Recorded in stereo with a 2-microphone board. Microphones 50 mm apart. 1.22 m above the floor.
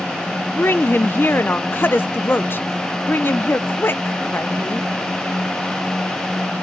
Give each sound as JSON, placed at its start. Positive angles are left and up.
{"t": 0.6, "sound": "a woman speaking", "side_deg": 45, "distance_m": 0.5}